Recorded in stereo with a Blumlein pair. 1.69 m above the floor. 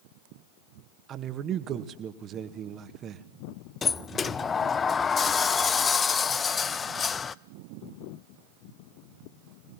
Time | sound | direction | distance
1.1 | a man speaking | 30° right | 1.9 m
3.8 | a sliding door | 20° left | 0.6 m